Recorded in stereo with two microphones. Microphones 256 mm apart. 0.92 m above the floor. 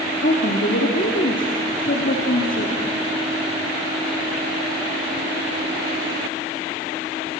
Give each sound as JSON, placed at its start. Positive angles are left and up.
{"t": 0.2, "sound": "a woman speaking", "side_deg": 50, "distance_m": 2.5}